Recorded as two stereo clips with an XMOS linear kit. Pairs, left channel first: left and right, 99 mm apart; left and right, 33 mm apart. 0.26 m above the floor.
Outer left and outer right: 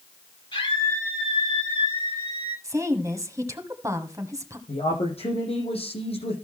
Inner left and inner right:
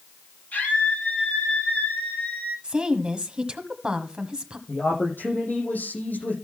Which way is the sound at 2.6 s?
35° right (ahead or behind).